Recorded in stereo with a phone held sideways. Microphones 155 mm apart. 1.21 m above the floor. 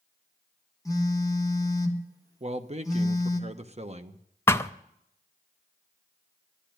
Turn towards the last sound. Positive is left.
turn(degrees=15)  # may be behind; listen again after turning